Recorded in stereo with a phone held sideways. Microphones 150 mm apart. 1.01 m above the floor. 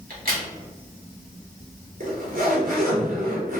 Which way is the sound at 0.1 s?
75° right (ahead or behind).